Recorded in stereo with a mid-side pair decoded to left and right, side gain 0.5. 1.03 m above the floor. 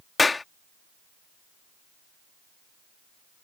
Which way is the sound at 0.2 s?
25° left.